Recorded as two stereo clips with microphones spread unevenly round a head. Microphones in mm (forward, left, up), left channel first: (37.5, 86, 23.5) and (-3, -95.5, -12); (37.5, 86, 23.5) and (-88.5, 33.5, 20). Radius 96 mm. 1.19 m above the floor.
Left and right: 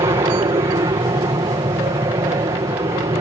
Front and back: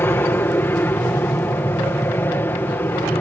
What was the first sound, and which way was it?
An aircraft, 50° right.